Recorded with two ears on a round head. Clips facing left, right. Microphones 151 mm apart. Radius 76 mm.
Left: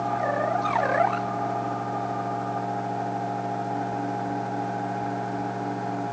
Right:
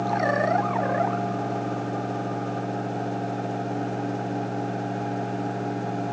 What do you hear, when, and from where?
Only background noise.